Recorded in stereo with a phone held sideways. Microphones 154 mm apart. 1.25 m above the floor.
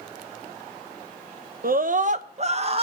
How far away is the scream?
About 1.0 m.